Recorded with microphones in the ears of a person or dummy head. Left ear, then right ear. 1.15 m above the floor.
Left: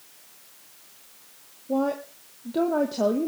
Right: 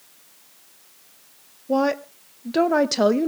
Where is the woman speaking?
65° right (ahead or behind), 0.6 m.